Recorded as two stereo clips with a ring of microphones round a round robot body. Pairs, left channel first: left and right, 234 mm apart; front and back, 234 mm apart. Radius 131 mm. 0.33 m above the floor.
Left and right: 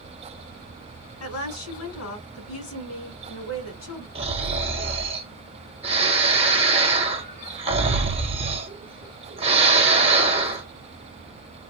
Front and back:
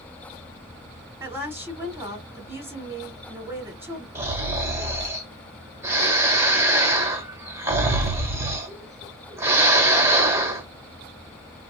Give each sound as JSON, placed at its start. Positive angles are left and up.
{"t": 1.2, "sound": "a woman speaking", "azimuth_deg": 100, "distance_m": 3.0}
{"t": 4.2, "sound": "snoring", "azimuth_deg": -115, "distance_m": 1.3}